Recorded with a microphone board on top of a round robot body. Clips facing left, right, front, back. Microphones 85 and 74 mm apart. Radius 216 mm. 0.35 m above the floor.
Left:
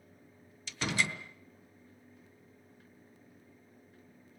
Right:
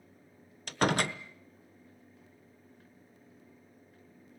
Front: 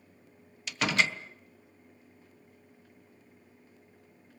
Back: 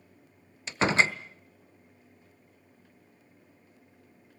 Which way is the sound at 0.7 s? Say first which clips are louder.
Right 6 dB, back 4 dB; 120° right.